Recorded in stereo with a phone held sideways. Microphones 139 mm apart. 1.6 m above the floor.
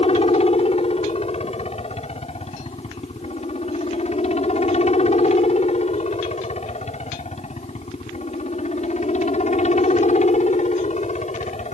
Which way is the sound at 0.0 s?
45° left (ahead or behind).